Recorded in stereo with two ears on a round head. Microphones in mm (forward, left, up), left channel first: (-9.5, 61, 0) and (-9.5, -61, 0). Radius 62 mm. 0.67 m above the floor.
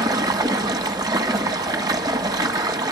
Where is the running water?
30° right (ahead or behind), 1.4 m.